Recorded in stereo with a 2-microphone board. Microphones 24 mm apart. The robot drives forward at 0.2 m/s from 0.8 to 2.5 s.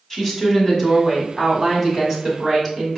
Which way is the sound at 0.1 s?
20° left (ahead or behind).